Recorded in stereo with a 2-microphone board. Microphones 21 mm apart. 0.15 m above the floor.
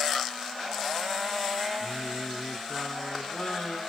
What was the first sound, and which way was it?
Singing, 70° left (ahead or behind).